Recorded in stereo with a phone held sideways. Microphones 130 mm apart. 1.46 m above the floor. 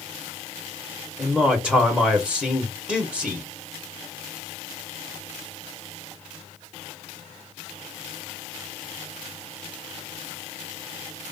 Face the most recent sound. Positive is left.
turn(degrees=0)  # may be behind; listen again after turning